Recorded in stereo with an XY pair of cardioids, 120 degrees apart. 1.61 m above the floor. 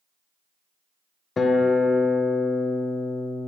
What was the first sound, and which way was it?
A guitar, 30° left.